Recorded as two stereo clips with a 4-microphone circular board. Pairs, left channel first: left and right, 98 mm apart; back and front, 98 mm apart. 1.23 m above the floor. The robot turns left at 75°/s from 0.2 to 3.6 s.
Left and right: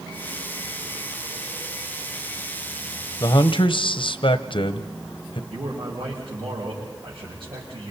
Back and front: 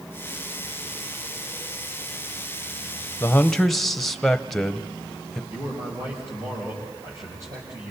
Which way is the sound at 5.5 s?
55° right.